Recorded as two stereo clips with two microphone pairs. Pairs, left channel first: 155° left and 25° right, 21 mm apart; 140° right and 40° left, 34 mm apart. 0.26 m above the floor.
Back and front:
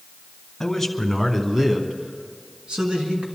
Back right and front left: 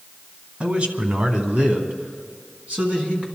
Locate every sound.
0.6 s a man speaking: 80° left, 2 m; by 3.3 s 5° right, 3 m